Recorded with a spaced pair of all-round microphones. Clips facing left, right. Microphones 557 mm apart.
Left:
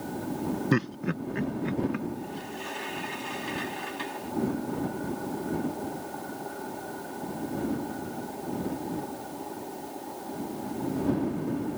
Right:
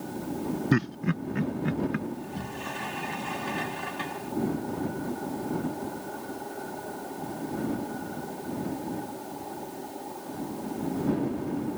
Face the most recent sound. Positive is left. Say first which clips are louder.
# even
turn(degrees=-70)  # may be behind; listen again after turning